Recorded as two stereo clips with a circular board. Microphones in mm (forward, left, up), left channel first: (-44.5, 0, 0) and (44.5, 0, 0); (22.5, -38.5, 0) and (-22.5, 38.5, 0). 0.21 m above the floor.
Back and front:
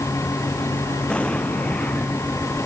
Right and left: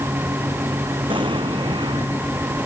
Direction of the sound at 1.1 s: 100° left.